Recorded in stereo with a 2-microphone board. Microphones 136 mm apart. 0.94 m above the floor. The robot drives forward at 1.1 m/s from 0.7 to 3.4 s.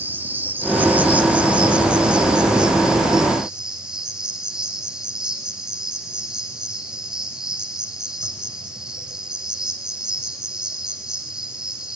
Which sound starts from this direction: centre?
An insect, at 0.0 s.